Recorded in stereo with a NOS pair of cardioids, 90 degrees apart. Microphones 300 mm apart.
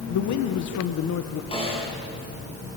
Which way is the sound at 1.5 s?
20° left.